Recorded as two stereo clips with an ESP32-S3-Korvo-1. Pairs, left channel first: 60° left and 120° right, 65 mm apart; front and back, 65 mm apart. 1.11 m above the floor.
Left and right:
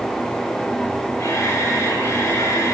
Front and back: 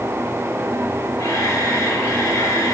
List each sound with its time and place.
1.2 s a camera shutter: 20° left, 8 m